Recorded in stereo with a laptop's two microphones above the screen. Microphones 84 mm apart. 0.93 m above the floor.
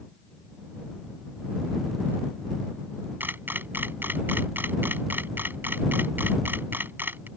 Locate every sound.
3.2 s a camera shutter: 25° right (ahead or behind)